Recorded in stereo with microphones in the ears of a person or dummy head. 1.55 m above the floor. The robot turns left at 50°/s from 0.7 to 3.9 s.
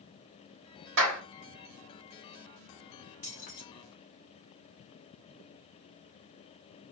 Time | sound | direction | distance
1.0 | a clap | 75° right (ahead or behind) | 1.5 m
3.2 | keys jangling | 35° left (ahead or behind) | 0.8 m